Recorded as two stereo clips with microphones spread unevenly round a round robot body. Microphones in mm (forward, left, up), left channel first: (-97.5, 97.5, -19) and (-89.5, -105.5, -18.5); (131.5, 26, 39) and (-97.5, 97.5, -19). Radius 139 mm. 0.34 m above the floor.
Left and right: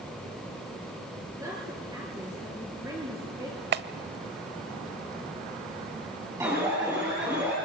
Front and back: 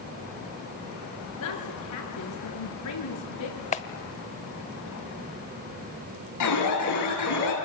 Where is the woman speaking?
5° right, 6.5 m.